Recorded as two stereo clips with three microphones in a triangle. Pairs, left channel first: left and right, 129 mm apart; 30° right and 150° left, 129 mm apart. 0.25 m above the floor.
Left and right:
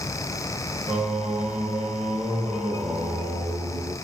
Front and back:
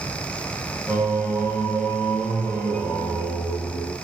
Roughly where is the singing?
Right.